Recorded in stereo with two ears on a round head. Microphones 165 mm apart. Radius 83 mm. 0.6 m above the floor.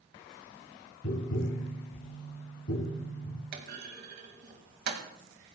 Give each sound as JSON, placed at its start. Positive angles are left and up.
{"t": 1.0, "sound": "tapping", "side_deg": 65, "distance_m": 7.5}
{"t": 3.5, "sound": "a clunk", "side_deg": -60, "distance_m": 2.5}